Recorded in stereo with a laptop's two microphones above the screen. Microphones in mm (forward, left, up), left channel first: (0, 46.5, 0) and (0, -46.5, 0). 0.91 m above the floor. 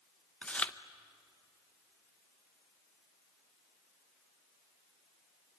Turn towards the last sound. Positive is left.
turn(degrees=15)  # may be behind; listen again after turning